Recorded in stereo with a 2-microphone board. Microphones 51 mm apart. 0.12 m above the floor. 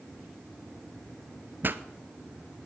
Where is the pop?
45° right (ahead or behind), 0.7 m.